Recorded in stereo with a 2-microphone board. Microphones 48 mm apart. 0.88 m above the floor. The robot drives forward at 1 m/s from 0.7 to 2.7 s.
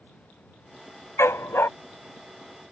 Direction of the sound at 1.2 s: 70° left (ahead or behind).